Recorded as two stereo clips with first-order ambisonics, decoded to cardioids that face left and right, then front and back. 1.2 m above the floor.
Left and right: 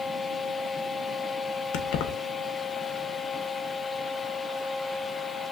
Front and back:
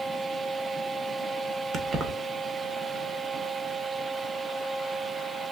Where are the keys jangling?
110° left, 0.7 m.